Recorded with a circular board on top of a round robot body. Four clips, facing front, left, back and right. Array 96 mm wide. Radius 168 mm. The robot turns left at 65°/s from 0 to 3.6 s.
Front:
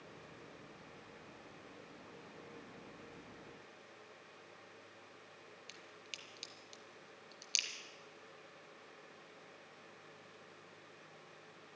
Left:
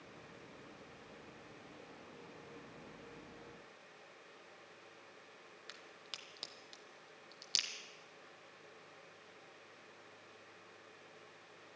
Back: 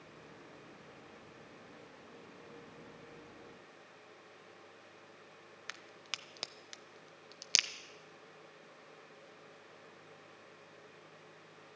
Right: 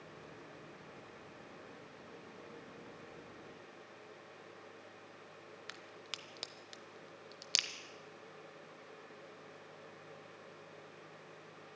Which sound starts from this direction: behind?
A crack, at 5.7 s.